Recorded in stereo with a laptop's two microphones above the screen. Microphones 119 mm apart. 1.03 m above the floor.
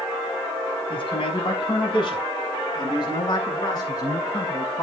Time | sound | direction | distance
0.9 | a man speaking | 50° left (ahead or behind) | 7 m